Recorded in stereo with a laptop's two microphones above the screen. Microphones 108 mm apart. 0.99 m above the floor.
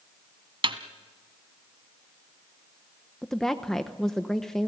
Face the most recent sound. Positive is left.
turn(degrees=5)  # may be behind; listen again after turning